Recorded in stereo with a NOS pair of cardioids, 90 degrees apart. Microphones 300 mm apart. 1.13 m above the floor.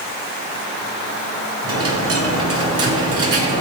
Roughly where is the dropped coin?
Ahead right.